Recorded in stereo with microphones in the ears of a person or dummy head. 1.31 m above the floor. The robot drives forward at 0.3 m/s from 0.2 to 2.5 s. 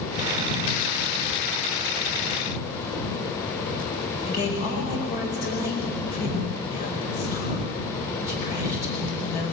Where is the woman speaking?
50° left (ahead or behind), 5 m.